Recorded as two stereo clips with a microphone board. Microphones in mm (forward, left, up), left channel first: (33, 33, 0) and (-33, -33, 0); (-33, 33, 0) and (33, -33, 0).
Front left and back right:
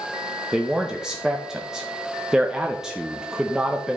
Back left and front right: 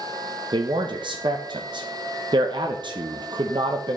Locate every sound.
0.5 s a man speaking: 55° right, 0.7 m